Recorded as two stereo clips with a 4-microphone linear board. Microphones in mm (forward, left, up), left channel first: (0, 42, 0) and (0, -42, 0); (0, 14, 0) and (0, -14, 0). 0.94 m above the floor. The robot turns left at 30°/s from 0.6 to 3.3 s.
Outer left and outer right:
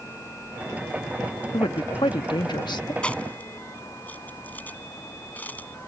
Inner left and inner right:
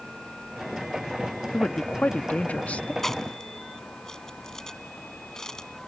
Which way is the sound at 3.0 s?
15° left (ahead or behind).